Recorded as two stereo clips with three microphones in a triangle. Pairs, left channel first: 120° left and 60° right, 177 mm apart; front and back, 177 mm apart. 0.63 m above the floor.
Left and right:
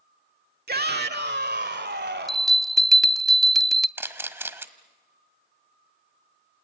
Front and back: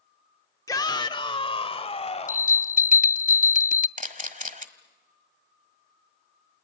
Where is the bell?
30° left, 0.6 m.